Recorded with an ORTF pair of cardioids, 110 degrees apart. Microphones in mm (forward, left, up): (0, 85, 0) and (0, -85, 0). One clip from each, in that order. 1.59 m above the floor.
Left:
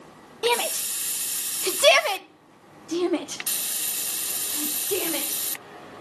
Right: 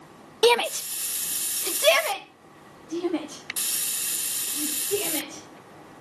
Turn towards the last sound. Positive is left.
turn(degrees=70)